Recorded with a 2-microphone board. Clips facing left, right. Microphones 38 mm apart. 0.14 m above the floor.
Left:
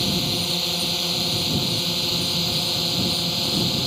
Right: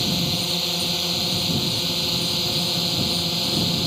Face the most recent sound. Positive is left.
turn(degrees=5)  # may be behind; listen again after turning